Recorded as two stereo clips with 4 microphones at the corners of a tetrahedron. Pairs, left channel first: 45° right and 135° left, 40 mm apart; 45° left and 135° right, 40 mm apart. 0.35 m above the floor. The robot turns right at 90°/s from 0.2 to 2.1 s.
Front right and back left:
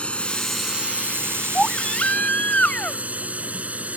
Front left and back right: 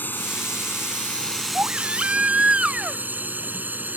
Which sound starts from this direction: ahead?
A drone, at 0.0 s.